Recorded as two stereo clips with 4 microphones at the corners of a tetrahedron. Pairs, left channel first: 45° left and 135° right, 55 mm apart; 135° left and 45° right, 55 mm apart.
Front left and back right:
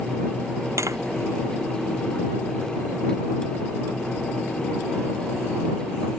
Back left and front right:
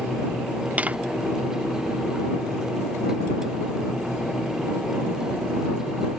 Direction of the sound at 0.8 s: 110° right.